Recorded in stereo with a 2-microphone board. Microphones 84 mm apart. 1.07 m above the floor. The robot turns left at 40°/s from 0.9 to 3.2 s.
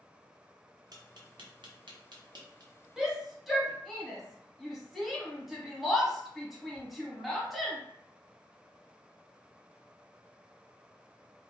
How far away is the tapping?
About 0.8 m.